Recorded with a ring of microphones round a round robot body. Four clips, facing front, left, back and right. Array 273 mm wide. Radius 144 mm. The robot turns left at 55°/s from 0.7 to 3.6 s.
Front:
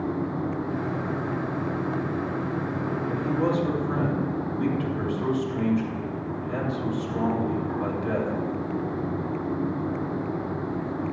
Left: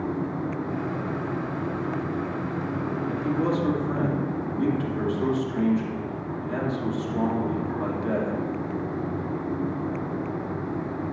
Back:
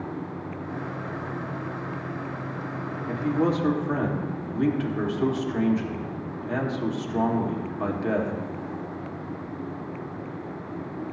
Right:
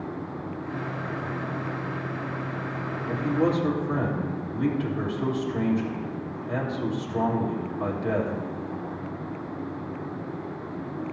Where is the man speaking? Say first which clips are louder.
Right 2 dB, back 2 dB; 150° right, 1.7 m; by 8.3 s 175° right, 1.7 m.